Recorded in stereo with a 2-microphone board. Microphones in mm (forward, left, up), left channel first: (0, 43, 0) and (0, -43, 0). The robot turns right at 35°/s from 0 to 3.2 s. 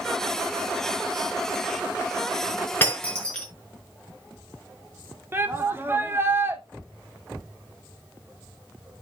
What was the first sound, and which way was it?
Breaking glass, 25° left (ahead or behind).